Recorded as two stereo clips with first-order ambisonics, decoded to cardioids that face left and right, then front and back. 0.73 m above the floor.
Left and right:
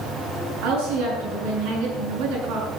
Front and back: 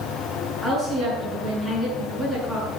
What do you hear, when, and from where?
0.6 s a woman speaking: 85° right, 7.5 m